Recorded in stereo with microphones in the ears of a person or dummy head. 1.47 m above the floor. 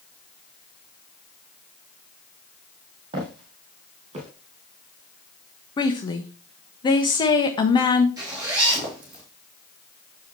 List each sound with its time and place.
3.1 s footsteps: 30° right (ahead or behind), 3 m; by 4.3 s 40° right (ahead or behind), 3.5 m
5.8 s a woman speaking: 25° left (ahead or behind), 1.1 m
8.2 s a zipper: 20° right (ahead or behind), 2.5 m